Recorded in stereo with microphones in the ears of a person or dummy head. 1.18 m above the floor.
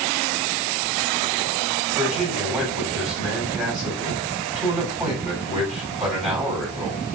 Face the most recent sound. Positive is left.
turn(degrees=0)  # may be behind; listen again after turning